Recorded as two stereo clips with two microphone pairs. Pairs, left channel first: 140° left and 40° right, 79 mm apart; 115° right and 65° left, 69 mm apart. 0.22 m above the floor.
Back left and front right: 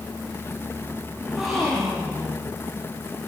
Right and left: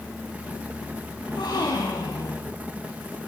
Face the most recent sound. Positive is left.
turn(degrees=-130)